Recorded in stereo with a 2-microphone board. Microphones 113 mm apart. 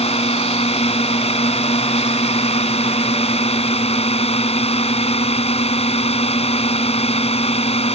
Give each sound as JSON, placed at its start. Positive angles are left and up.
{"t": 0.0, "sound": "a drone", "side_deg": 75}